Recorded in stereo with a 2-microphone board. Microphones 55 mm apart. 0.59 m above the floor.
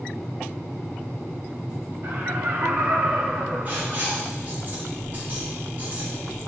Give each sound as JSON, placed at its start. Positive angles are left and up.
{"t": 2.0, "sound": "laughter", "side_deg": -65, "distance_m": 3.0}
{"t": 3.6, "sound": "writing", "side_deg": -35, "distance_m": 4.5}